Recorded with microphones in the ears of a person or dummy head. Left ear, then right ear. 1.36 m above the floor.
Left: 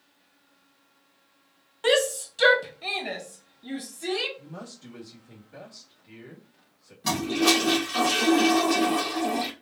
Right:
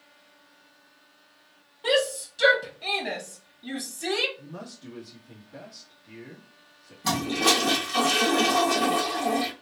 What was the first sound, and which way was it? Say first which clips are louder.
A shout: left 1 dB; 50° left (ahead or behind).